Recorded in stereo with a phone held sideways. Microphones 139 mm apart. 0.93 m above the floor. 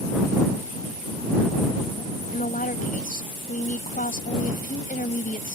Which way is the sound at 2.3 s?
85° left.